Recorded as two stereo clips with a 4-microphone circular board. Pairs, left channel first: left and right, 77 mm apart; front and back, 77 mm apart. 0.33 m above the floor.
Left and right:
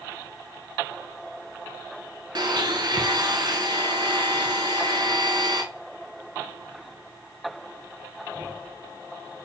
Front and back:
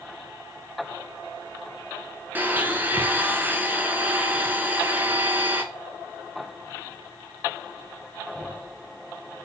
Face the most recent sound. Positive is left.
turn(degrees=-115)